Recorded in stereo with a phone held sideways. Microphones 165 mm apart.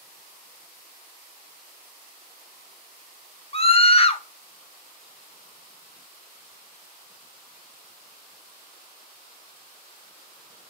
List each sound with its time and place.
3.5 s a scream: 35° left (ahead or behind), 0.5 m